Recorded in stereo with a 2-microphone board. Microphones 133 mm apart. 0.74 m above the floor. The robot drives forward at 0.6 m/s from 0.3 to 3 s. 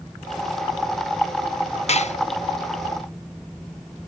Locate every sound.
1.9 s dishes clattering: 55° left (ahead or behind), 0.5 m